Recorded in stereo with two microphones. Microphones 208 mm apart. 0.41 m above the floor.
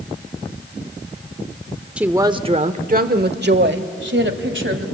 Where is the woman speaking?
5° right (ahead or behind), 0.8 m; by 4.8 s 70° right (ahead or behind), 2 m.